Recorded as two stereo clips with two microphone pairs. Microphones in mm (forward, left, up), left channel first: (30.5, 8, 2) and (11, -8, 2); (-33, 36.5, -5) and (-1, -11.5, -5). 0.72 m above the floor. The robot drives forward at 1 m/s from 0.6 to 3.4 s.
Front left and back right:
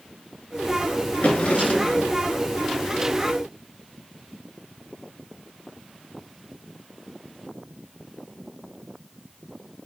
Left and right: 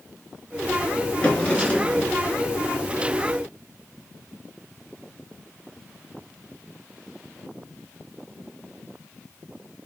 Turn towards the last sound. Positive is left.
turn(degrees=80)